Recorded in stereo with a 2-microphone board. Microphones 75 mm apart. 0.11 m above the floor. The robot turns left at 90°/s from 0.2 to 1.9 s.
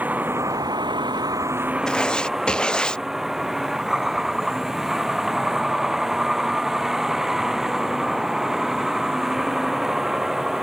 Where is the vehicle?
20° right; by 10.6 s 175° right.